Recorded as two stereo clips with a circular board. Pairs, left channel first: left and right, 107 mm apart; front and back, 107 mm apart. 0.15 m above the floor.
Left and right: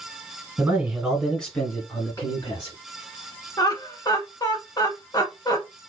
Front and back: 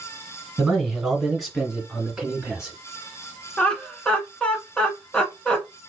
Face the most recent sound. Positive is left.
turn(degrees=80)